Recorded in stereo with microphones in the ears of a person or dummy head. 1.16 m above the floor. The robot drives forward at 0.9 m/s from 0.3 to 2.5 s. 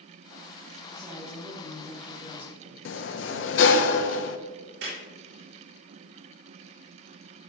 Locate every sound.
0.9 s a woman speaking: 25° right (ahead or behind), 2.5 m; by 2.8 s 15° right (ahead or behind), 4 m
2.9 s a sliding door: 70° left (ahead or behind), 0.7 m
4.8 s a clap: 70° right (ahead or behind), 4 m